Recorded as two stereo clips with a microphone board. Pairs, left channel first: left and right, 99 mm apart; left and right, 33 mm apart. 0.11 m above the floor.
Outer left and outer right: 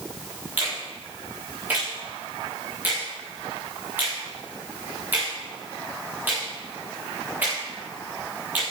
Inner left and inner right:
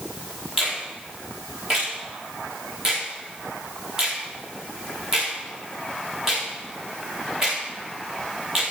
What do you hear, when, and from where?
0.6 s a finger snap: 15° right (ahead or behind), 8 m